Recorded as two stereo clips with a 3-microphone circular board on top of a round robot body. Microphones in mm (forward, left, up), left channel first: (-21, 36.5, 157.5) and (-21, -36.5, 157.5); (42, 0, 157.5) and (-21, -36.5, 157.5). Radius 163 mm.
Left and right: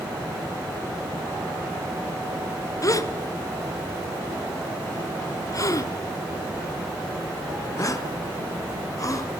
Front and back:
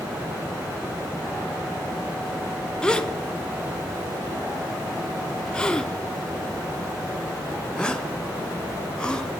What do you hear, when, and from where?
2.8 s a gasp: 105° left, 1.3 m